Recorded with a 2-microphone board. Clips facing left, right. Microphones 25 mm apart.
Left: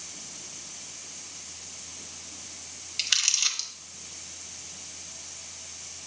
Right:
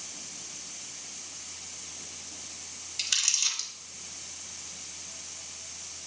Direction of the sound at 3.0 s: 30° left (ahead or behind).